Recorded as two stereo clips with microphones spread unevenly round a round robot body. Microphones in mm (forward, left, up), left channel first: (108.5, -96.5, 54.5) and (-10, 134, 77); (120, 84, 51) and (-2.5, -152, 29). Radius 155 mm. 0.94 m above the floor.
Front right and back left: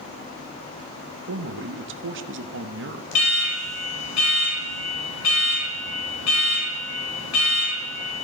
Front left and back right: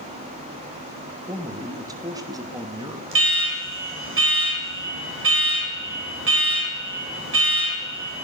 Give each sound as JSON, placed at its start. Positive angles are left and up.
{"t": 1.3, "sound": "a man speaking", "azimuth_deg": 165, "distance_m": 0.9}
{"t": 3.1, "sound": "an alarm", "azimuth_deg": -80, "distance_m": 4.0}